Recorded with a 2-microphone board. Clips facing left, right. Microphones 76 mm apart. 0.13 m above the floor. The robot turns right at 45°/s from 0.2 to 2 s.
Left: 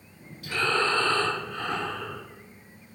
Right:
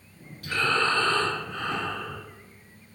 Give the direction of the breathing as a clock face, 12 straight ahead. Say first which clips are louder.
Right 1 dB; 3 o'clock.